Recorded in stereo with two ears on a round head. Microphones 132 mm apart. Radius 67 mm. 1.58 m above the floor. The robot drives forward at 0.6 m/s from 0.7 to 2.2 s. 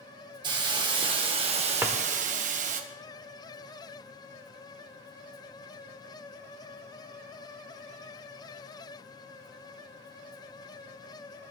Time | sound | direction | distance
0.4 | a hiss | 30° right (ahead or behind) | 1.7 m
1.8 | a drawer | 15° right (ahead or behind) | 1.3 m